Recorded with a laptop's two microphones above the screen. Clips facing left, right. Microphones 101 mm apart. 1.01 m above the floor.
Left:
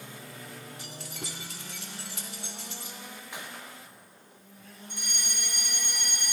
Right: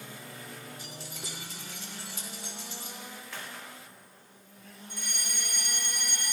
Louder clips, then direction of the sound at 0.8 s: Left 2 dB; 70° left (ahead or behind).